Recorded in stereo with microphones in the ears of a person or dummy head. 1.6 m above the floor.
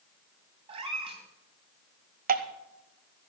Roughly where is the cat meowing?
Right.